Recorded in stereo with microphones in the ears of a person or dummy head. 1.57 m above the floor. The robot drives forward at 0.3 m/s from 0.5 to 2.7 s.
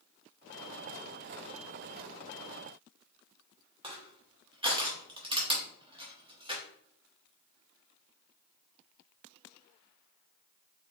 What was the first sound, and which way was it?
Crushing, 20° right (ahead or behind).